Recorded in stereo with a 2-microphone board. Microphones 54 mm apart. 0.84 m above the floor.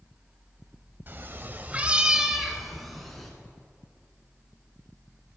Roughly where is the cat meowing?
Right.